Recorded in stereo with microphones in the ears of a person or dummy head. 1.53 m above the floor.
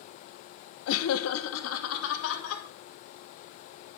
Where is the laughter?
70° left (ahead or behind), 0.8 m; by 2.6 s 75° left (ahead or behind), 2.5 m.